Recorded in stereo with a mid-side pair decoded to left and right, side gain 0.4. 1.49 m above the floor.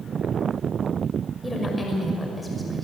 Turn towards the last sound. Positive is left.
turn(degrees=15)